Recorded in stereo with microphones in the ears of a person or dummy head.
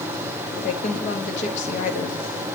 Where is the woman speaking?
35° left (ahead or behind), 1.2 m.